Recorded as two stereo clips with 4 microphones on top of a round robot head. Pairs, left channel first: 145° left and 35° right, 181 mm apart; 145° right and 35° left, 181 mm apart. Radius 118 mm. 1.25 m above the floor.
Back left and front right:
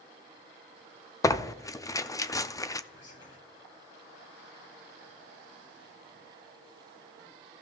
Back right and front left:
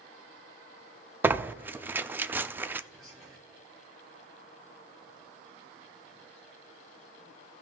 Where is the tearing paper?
100° left, 0.6 m.